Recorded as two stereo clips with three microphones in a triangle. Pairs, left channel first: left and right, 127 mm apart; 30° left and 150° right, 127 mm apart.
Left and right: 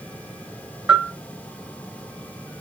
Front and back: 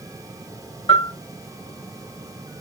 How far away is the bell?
About 2.5 m.